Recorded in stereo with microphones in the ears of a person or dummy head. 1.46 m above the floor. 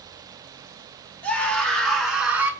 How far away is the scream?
About 4 m.